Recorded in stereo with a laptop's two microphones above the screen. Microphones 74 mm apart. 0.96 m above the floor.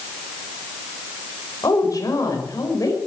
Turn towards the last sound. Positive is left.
turn(degrees=55)  # may be behind; listen again after turning